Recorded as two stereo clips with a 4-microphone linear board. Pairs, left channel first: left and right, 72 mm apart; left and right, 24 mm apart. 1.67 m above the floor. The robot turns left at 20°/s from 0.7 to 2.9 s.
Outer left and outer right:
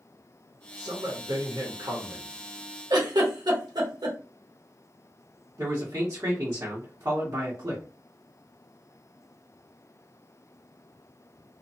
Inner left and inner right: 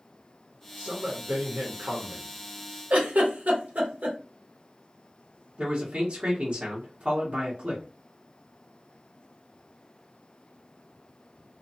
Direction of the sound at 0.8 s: 75° right.